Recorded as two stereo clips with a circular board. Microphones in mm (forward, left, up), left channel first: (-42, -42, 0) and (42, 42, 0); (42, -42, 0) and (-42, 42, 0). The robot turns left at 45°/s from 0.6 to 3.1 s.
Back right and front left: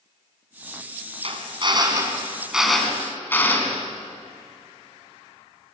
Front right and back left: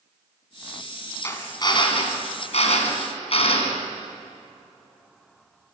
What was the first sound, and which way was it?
A drill, 20° left.